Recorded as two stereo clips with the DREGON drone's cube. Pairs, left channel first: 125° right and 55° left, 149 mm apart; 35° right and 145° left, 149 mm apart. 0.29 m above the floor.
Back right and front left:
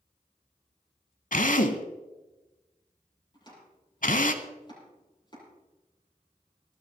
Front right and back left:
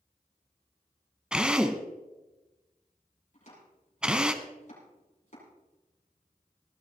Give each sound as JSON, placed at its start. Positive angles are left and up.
{"t": 1.3, "sound": "a drill", "azimuth_deg": -130, "distance_m": 0.9}
{"t": 3.3, "sound": "chopping", "azimuth_deg": -65, "distance_m": 7.0}